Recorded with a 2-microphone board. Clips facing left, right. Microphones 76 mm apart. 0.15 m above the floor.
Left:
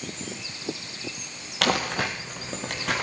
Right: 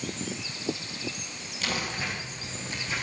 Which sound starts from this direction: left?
Crumpling, at 1.6 s.